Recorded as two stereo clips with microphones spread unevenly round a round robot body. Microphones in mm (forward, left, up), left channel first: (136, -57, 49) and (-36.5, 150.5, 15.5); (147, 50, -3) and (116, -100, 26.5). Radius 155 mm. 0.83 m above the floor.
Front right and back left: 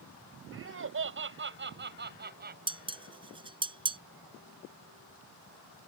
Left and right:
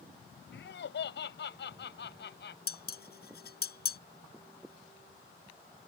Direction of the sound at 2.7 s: 55° left.